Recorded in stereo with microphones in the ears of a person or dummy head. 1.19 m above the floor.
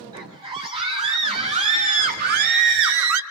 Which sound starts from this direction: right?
A scream, at 0.1 s.